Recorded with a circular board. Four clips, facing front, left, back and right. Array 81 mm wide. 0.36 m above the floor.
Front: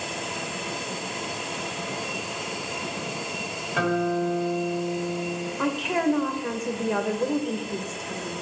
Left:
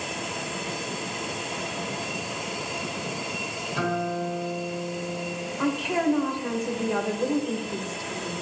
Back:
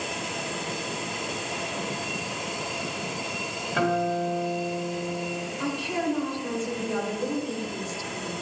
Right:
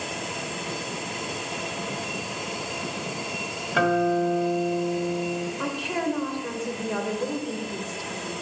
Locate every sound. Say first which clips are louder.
3.7 s a guitar: right 6 dB, front 1 dB; 95° right, 2.5 m
5.6 s a woman speaking: left 7 dB, front 4 dB; 10° left, 0.9 m